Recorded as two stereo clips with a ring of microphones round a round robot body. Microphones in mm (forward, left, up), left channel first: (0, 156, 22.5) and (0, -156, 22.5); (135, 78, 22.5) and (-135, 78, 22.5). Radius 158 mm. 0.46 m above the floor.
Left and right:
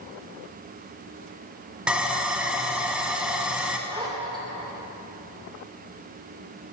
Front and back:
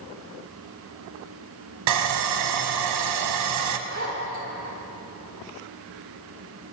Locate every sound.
1.9 s sawing: 175° right, 0.8 m
3.9 s a zipper: 160° right, 1.8 m